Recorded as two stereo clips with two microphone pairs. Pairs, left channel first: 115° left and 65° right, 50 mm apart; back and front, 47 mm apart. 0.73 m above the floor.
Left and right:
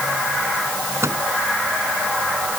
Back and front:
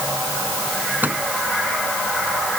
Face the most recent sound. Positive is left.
turn(degrees=-45)